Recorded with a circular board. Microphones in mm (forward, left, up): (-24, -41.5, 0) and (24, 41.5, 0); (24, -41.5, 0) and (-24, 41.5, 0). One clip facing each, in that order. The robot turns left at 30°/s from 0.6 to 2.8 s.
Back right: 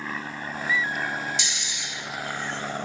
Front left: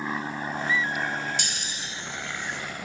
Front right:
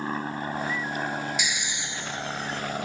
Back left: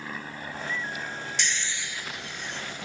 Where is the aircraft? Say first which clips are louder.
Front left 3 dB, front right 7 dB; 15° right; by 2.9 s 75° right.